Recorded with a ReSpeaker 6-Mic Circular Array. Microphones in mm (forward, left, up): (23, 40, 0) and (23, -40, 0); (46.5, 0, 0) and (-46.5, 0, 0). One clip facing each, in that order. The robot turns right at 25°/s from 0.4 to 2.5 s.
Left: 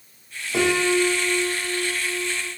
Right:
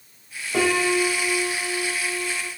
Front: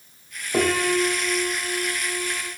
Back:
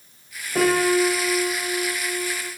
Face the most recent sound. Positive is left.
turn(degrees=50)